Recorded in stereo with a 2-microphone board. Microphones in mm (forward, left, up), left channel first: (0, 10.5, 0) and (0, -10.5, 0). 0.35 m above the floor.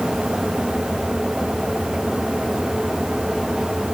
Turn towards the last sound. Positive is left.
No sound to turn to.